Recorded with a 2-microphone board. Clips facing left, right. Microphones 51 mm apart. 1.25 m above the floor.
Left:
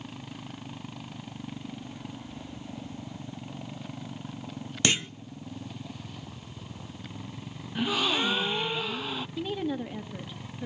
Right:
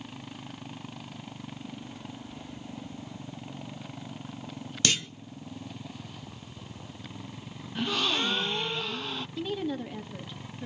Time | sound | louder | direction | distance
4.8 | a clunk | left 2 dB | 20° left (ahead or behind) | 0.5 m
7.8 | a gasp | left 2 dB | 10° left (ahead or behind) | 0.6 m
9.4 | a woman speaking | even | 10° left (ahead or behind) | 2.5 m